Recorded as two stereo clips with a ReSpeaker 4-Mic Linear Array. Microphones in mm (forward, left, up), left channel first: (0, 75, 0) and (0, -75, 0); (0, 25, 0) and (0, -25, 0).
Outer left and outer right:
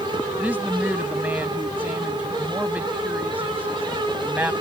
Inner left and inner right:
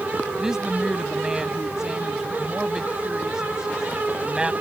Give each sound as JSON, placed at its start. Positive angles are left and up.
{"t": 0.4, "sound": "a woman speaking", "side_deg": -10}